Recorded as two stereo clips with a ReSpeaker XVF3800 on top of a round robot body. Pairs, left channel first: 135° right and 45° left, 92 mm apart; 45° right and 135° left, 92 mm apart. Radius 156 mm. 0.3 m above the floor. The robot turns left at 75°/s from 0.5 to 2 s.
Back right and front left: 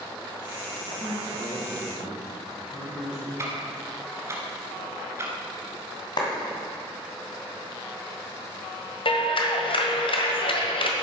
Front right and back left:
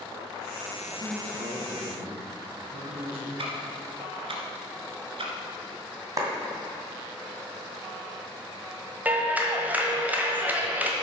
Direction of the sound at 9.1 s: 155° right.